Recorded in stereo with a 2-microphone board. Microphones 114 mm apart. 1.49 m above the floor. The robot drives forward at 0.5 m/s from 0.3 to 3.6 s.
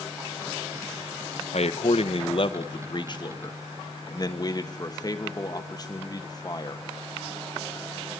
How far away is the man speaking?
About 0.9 m.